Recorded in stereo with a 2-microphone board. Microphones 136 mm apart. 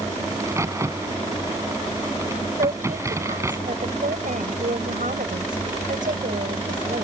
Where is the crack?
20° right (ahead or behind).